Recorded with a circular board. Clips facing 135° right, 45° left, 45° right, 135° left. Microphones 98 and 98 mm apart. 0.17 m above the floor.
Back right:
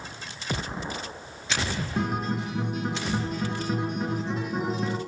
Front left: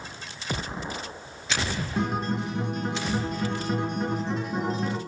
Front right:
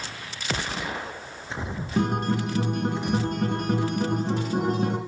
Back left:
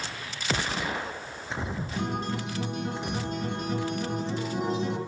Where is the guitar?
50° right, 2.5 m.